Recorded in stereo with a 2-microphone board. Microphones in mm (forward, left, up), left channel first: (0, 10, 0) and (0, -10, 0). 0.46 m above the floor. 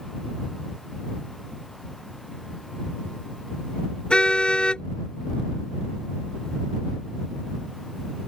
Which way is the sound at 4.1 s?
65° left (ahead or behind).